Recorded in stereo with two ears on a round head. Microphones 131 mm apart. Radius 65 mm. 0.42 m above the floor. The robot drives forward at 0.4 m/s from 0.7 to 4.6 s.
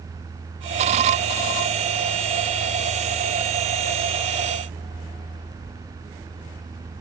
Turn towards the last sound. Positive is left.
No sound to turn to.